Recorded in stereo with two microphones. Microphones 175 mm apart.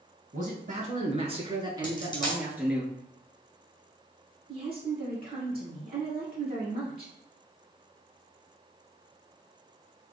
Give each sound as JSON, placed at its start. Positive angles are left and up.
{"t": 0.3, "sound": "a man speaking", "side_deg": -50, "distance_m": 1.6}
{"t": 1.8, "sound": "a dropped coin", "side_deg": 25, "distance_m": 1.8}
{"t": 4.5, "sound": "a woman speaking", "side_deg": -35, "distance_m": 1.5}